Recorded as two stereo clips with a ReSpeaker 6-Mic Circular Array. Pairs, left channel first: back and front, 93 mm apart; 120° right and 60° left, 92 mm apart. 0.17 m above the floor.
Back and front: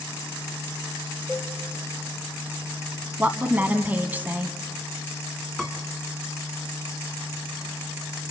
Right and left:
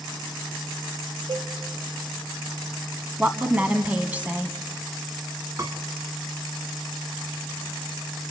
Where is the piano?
95° left, 1.6 m.